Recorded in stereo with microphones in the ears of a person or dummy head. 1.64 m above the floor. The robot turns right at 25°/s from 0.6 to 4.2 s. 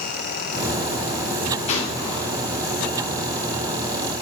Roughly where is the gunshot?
Left.